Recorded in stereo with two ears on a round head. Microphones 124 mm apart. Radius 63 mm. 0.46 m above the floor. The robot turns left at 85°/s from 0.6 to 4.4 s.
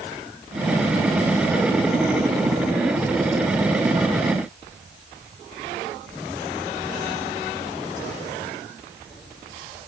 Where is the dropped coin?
No dropped coin in this recording.